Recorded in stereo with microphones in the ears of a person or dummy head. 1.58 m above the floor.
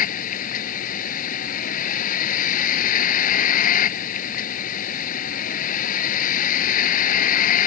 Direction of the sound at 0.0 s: 40° left (ahead or behind).